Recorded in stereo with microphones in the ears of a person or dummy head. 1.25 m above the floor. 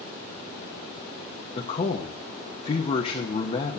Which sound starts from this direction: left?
A man speaking, at 1.6 s.